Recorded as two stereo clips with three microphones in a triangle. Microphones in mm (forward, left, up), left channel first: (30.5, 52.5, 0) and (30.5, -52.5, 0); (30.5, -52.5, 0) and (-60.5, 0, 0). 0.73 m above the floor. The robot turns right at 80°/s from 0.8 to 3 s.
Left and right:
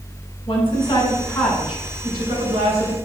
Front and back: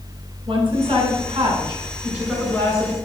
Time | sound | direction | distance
0.5 | a woman speaking | 115° left | 3 m